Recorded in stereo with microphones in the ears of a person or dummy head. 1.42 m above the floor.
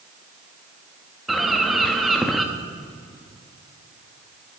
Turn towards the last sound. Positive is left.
turn(degrees=0)  # may be behind; listen again after turning